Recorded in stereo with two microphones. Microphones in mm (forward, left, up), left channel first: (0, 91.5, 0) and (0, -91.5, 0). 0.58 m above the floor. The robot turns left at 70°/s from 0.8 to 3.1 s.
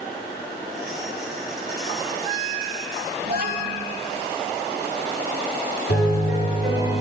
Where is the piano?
70° left (ahead or behind), 4.5 m.